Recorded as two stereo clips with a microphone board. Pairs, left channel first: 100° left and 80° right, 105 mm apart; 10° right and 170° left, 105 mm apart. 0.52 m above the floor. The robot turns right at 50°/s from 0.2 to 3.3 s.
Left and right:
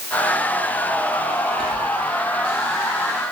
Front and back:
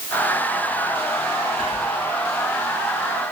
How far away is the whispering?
About 2.5 m.